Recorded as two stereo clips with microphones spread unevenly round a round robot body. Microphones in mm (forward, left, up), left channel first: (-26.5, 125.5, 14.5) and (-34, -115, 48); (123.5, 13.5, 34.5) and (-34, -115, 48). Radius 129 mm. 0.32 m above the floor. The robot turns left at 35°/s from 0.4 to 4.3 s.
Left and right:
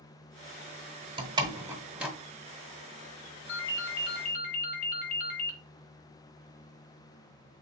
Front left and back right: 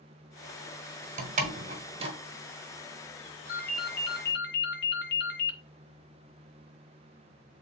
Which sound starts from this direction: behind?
A door slam, at 1.2 s.